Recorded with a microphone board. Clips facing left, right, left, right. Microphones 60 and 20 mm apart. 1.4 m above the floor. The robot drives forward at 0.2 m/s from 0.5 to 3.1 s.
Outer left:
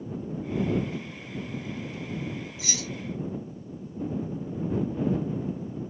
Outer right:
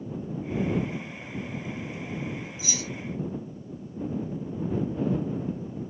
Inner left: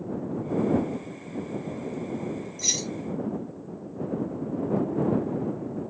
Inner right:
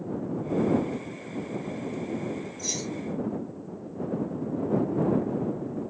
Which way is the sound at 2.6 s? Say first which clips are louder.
Even, inner left 7 dB; 70° left (ahead or behind).